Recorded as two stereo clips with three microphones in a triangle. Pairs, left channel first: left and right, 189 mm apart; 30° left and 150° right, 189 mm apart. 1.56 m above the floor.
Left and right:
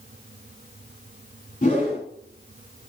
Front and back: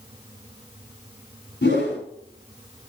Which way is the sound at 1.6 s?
40° left.